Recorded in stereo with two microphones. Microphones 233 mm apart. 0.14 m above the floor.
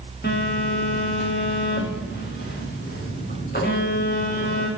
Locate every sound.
0.2 s a phone buzzing: 45° left (ahead or behind), 7 m